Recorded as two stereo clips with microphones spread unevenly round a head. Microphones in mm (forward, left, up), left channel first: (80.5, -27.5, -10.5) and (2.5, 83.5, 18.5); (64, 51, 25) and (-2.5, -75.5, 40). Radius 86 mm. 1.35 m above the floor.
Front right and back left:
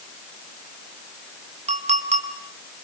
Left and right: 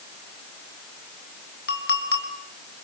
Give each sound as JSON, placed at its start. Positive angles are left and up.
{"t": 1.7, "sound": "a clink", "azimuth_deg": 90, "distance_m": 3.5}